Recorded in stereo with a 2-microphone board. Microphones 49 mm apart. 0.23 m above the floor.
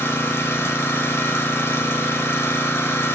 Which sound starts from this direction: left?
An engine running, at 0.0 s.